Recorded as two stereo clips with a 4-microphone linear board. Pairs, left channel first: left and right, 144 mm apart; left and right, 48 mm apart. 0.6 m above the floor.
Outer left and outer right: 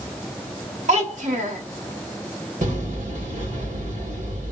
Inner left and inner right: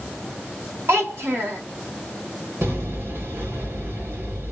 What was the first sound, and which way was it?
A child speaking, 55° right (ahead or behind).